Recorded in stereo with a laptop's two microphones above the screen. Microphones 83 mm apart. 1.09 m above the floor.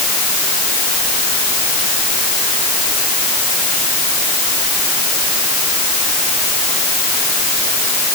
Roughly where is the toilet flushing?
I don't hear a toilet flushing.